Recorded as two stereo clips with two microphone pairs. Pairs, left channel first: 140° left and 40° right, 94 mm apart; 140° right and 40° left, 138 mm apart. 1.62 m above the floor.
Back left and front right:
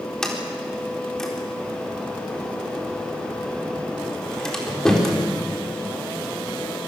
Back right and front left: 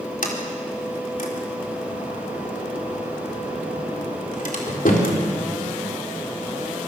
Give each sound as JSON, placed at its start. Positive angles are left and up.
{"t": 0.2, "sound": "a sliding door", "azimuth_deg": -135, "distance_m": 4.0}